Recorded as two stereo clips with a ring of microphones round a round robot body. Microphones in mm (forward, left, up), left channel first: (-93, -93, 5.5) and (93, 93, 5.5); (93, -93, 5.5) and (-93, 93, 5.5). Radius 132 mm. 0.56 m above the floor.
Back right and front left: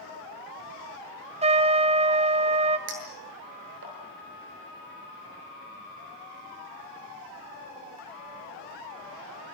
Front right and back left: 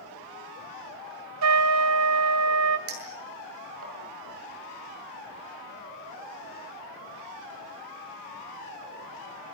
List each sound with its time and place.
1.4 s a trumpet: 110° left, 2 m
2.9 s a clink: 95° left, 8 m